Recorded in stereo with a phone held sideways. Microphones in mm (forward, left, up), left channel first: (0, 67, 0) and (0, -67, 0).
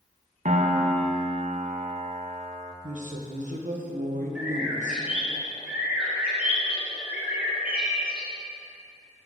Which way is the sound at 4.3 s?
10° right (ahead or behind).